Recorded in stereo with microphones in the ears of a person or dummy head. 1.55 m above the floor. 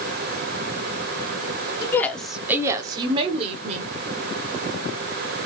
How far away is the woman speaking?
About 0.6 m.